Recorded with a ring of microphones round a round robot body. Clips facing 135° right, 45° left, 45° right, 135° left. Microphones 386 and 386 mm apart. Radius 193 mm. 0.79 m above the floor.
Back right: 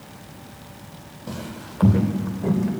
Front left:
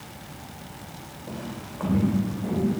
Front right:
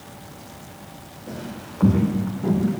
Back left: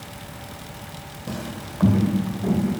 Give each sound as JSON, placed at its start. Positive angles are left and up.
{"t": 1.3, "sound": "footsteps", "azimuth_deg": -175, "distance_m": 1.5}